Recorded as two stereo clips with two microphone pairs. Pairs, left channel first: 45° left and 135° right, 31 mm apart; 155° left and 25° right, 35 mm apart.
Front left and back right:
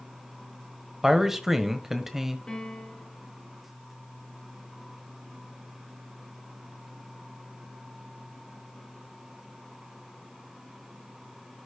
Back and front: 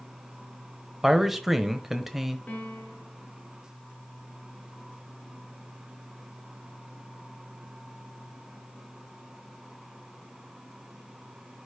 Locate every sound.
1.0 s a man speaking: 90° right, 1.0 m
2.5 s a piano: 105° left, 2.5 m